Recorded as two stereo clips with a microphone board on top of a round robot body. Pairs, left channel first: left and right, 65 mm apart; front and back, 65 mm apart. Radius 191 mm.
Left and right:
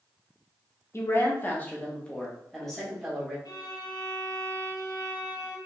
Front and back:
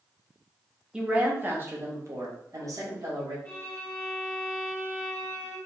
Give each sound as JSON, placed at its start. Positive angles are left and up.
{"t": 0.9, "sound": "a woman speaking", "azimuth_deg": 110, "distance_m": 1.2}
{"t": 3.5, "sound": "a violin", "azimuth_deg": 75, "distance_m": 0.9}